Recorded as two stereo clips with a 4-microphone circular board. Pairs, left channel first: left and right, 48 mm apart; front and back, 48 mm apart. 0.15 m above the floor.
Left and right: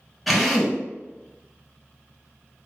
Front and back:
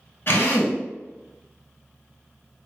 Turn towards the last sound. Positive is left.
turn(degrees=0)